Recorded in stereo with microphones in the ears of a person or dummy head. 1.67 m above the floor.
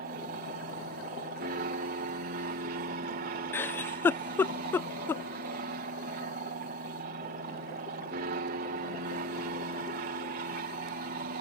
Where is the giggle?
15° left (ahead or behind).